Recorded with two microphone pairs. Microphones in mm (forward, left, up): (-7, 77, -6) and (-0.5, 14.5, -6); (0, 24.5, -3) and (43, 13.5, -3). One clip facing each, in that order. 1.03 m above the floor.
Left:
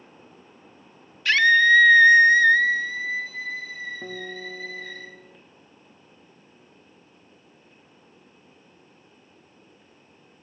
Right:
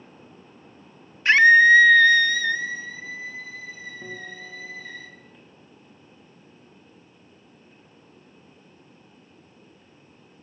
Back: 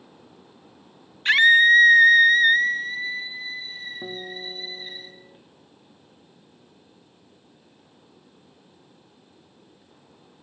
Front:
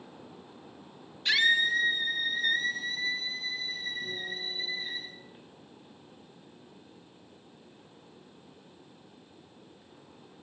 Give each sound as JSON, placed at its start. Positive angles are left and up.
{"t": 1.2, "sound": "a scream", "azimuth_deg": -145, "distance_m": 1.4}
{"t": 4.0, "sound": "a guitar", "azimuth_deg": 155, "distance_m": 2.0}